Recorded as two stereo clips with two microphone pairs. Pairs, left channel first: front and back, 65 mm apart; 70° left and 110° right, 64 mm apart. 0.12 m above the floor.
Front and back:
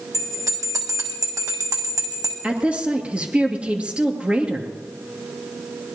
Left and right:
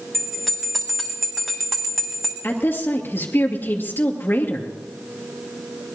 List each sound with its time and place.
0.1 s a bell: 160° left, 2 m
2.4 s a woman speaking: 115° left, 2 m